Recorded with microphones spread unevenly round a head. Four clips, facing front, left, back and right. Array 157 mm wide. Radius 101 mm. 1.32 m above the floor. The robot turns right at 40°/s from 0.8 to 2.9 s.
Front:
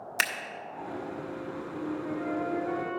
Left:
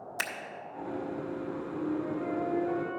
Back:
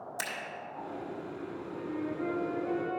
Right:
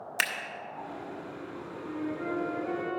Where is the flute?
135° right, 2.5 m; by 3.0 s 90° right, 2.5 m.